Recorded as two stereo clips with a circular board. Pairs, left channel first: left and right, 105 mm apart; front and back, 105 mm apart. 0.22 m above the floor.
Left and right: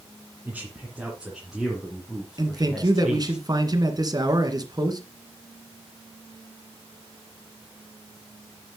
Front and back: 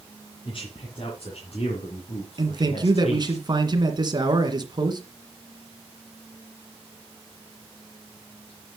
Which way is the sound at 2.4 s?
135° right.